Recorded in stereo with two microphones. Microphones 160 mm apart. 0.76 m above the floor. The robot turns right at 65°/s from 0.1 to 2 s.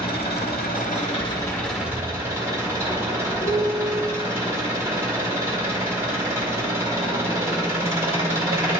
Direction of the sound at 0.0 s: 70° left.